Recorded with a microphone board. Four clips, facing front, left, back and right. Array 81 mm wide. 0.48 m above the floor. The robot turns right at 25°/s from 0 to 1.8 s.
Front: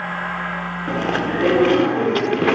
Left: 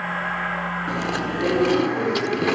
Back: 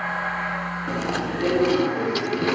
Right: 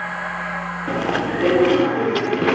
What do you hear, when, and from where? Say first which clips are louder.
0.9 s chewing: right 8 dB, front 6 dB; 50° right, 1.3 m; by 2.6 s 25° right, 1.3 m